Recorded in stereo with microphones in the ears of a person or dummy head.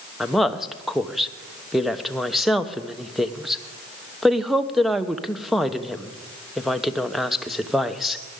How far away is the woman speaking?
About 1.0 m.